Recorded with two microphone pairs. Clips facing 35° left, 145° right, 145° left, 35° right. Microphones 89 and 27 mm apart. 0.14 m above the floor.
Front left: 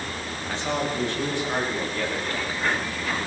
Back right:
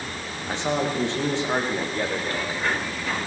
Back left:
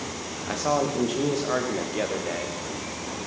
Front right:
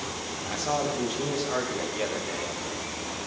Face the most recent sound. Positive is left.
turn(degrees=155)